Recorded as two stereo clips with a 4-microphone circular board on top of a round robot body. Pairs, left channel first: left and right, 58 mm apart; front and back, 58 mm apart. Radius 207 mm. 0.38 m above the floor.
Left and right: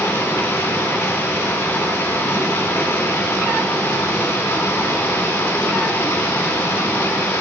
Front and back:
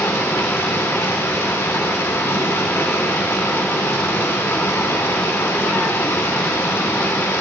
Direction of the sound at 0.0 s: 35° left.